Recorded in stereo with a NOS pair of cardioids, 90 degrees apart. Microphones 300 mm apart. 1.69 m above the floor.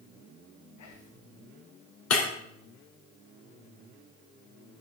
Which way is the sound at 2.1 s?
60° left.